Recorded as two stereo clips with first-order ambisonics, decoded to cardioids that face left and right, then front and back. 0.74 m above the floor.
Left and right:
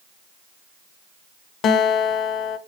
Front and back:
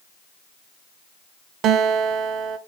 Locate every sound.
1.6 s a guitar: 135° left, 0.7 m